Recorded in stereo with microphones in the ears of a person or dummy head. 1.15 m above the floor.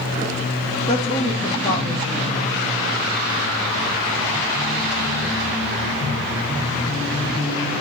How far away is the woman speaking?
About 1.8 m.